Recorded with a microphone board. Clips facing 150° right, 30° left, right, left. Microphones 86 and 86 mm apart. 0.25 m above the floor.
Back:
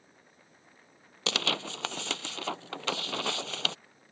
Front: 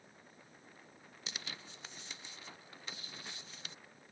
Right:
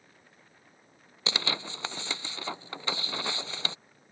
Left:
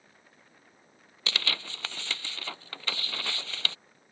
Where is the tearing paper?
160° right.